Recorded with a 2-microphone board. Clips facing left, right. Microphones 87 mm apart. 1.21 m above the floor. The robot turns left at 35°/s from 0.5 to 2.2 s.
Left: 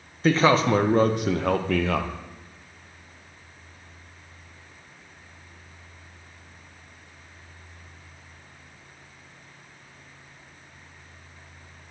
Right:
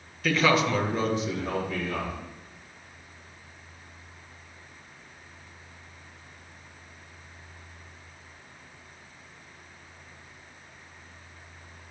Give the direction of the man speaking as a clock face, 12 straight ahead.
7 o'clock.